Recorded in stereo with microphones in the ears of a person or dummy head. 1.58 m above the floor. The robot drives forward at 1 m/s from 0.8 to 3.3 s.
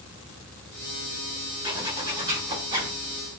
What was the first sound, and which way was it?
A zipper, 25° right (ahead or behind).